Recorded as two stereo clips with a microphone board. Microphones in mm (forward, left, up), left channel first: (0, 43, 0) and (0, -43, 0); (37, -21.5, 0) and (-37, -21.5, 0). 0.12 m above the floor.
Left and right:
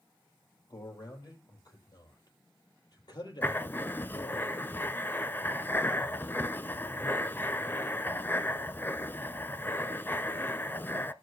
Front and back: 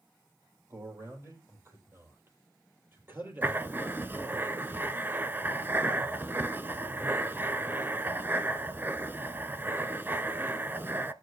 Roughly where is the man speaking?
Behind left.